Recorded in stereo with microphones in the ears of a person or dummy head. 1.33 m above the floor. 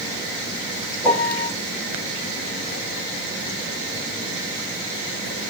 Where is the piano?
Centre (ahead or behind), 3.5 m.